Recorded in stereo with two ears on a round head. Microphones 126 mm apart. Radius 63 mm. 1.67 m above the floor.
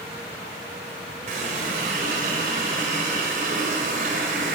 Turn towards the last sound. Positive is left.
turn(degrees=-60)  # may be behind; listen again after turning